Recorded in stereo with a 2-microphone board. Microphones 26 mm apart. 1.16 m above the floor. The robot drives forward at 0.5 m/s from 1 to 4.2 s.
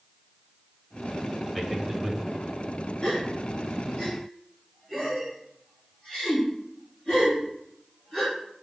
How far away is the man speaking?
About 1.1 m.